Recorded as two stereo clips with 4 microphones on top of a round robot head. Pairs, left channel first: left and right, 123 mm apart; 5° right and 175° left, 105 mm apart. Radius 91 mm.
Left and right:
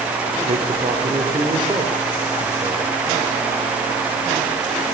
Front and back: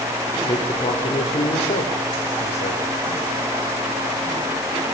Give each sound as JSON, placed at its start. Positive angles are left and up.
{"t": 0.5, "sound": "a man speaking", "azimuth_deg": -50, "distance_m": 3.0}